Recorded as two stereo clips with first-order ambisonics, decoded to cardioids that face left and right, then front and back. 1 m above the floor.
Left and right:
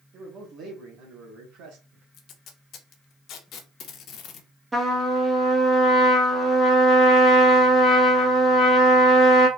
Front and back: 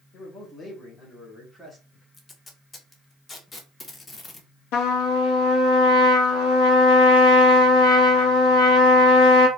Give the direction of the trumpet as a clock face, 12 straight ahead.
12 o'clock.